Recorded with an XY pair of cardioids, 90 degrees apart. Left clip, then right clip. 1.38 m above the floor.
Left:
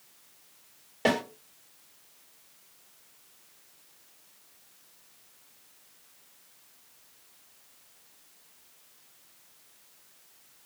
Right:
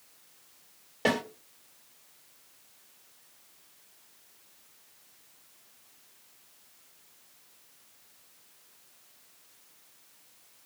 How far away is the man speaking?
No man speaking in this recording.